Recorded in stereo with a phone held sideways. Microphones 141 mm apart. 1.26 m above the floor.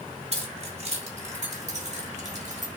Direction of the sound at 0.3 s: 45° right (ahead or behind).